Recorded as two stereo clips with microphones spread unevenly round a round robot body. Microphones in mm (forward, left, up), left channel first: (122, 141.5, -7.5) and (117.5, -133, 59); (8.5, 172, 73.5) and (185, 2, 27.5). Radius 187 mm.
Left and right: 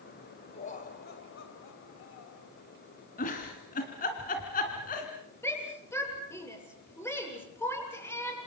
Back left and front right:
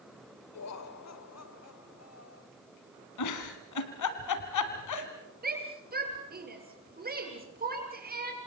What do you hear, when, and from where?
0.5 s laughter: 150° left, 2.5 m; by 2.5 s 105° left, 3 m
3.2 s a giggle: 155° left, 2 m
5.4 s a shout: 10° left, 8.5 m